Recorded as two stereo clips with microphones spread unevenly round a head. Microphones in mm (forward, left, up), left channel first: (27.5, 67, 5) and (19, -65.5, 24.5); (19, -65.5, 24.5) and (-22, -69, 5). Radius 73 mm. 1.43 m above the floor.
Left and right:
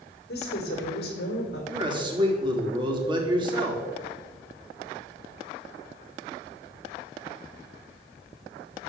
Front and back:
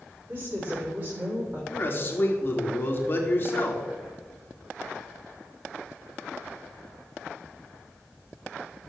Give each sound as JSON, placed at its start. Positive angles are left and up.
{"t": 0.3, "sound": "a woman speaking", "azimuth_deg": 110, "distance_m": 4.0}
{"t": 1.7, "sound": "a man speaking", "azimuth_deg": -35, "distance_m": 3.5}